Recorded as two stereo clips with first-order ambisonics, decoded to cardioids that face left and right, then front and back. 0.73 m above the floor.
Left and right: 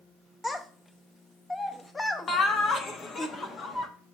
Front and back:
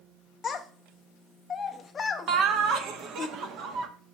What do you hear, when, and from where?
0.4 s a child speaking: 20° left, 0.6 m
2.3 s laughter: 150° left, 1.0 m